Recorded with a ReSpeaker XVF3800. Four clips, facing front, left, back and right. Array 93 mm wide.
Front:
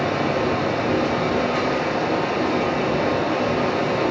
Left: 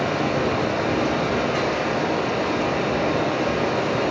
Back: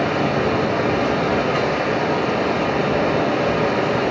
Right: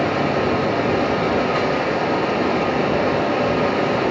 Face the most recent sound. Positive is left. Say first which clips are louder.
# right 3 dB, back 2 dB
turn(degrees=-145)